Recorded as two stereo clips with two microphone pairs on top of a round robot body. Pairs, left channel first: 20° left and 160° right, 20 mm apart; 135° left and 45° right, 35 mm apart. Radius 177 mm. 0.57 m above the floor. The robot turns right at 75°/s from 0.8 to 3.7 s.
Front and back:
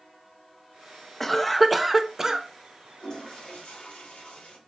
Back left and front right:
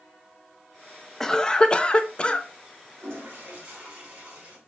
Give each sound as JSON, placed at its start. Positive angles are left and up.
{"t": 1.2, "sound": "a cough", "azimuth_deg": 70, "distance_m": 0.6}
{"t": 3.0, "sound": "a toilet flushing", "azimuth_deg": -45, "distance_m": 2.0}